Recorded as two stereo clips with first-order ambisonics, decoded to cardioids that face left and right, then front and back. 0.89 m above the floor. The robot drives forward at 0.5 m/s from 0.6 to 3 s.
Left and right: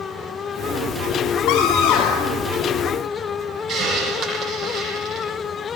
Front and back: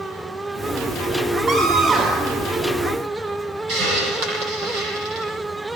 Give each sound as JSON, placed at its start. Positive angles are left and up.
{"t": 1.5, "sound": "a scream", "azimuth_deg": 115, "distance_m": 3.0}
{"t": 3.7, "sound": "a hiss", "azimuth_deg": -140, "distance_m": 9.0}